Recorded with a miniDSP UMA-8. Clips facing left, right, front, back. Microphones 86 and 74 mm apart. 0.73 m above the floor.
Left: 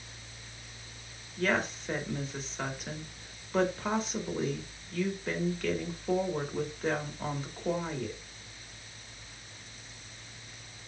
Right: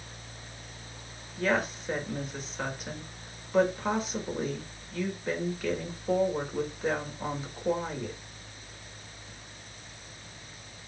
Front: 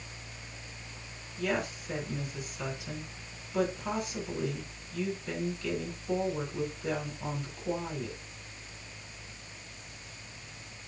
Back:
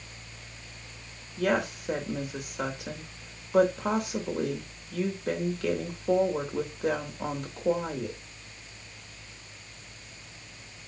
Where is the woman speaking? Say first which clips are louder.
Right 2 dB, back 5 dB; 175° right, 2.5 m.